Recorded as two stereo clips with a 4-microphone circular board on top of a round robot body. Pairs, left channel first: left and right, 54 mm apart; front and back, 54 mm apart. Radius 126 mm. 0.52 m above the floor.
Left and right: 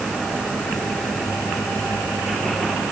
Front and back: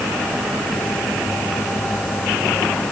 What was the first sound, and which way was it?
Only background noise.